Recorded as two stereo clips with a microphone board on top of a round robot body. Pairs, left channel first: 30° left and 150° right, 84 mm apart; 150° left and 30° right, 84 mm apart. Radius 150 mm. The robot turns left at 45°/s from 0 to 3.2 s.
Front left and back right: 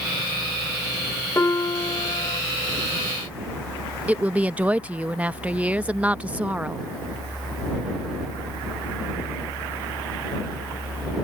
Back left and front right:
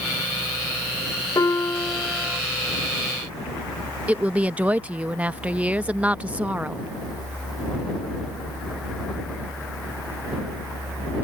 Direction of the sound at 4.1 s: 90° right.